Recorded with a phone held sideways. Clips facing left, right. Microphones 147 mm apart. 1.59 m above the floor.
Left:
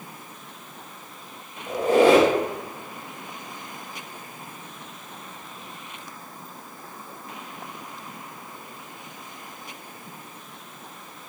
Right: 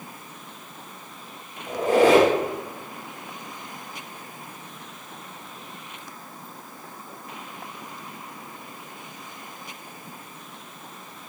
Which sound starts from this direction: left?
A squeak, at 1.7 s.